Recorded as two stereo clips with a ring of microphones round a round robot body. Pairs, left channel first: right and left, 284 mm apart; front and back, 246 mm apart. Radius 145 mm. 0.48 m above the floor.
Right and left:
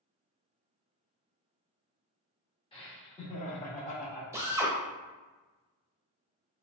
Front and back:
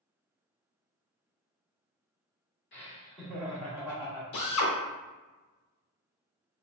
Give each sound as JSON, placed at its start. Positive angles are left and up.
{"t": 2.7, "sound": "laughter", "azimuth_deg": -25, "distance_m": 1.2}
{"t": 4.3, "sound": "a drill", "azimuth_deg": 10, "distance_m": 0.9}